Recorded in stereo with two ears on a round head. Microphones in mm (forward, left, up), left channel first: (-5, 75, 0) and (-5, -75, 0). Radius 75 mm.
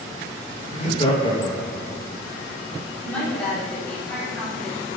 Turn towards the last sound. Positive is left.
turn(degrees=10)  # may be behind; listen again after turning